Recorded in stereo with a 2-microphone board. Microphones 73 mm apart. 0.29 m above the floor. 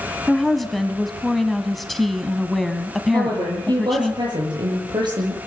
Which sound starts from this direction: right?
A woman speaking, at 3.1 s.